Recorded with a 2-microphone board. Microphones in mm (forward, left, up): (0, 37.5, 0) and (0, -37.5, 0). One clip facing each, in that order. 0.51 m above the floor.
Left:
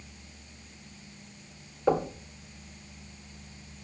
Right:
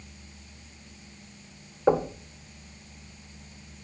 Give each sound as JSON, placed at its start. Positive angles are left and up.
{"t": 1.9, "sound": "knocking", "side_deg": -25, "distance_m": 1.5}